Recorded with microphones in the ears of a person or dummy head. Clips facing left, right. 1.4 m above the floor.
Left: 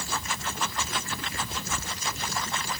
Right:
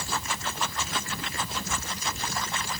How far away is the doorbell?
I don't hear a doorbell.